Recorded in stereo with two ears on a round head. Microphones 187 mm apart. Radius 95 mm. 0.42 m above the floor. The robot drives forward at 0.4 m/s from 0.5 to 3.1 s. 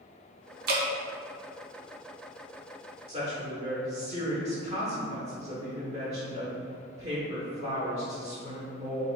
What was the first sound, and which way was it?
Dripping, 50° right (ahead or behind).